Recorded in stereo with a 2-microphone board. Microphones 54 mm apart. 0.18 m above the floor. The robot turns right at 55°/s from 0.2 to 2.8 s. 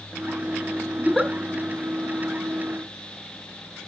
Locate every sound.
1.0 s a giggle: 10° left (ahead or behind), 1.9 m; by 1.3 s 5° right (ahead or behind), 1.9 m